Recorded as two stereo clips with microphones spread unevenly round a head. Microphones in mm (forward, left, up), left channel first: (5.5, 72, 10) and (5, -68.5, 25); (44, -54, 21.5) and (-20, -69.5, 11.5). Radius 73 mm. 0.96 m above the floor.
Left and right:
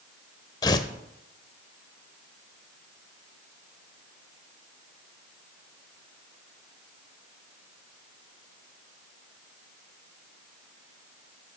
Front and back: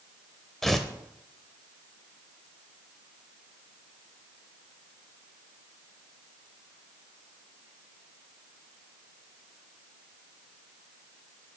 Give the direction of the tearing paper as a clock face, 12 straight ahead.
10 o'clock.